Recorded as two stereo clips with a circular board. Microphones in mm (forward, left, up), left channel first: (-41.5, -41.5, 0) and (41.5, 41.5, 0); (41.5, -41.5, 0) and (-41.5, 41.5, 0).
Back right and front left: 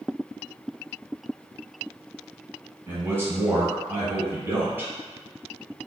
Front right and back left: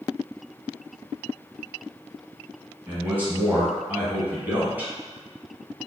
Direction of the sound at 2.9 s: 85° left.